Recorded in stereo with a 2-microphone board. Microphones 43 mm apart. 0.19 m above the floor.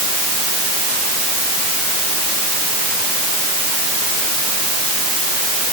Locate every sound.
Only background noise.